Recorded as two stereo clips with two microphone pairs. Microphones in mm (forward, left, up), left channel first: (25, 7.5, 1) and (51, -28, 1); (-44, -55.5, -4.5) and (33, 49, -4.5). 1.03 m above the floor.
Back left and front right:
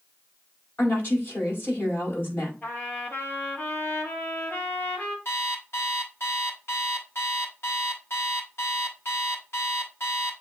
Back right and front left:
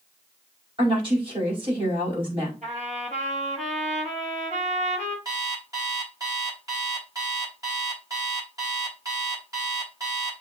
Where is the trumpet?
80° left, 5.5 m.